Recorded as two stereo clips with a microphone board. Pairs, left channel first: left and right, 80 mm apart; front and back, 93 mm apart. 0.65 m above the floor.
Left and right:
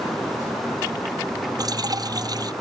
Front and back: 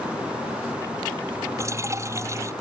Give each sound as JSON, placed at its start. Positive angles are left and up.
{"t": 1.6, "sound": "dripping", "azimuth_deg": -125}